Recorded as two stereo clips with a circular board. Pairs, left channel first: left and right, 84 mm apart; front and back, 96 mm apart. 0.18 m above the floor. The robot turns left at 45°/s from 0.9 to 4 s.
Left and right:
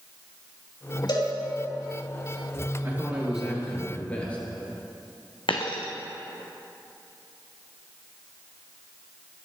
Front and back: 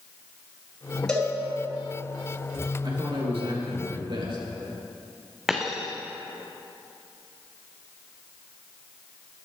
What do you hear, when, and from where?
1.1 s a cowbell: 80° left, 3 m; by 1.3 s 70° left, 3 m
2.8 s a man speaking: 150° right, 3 m; by 4.4 s 160° left, 3 m
5.5 s a dropped coin: 95° left, 1.2 m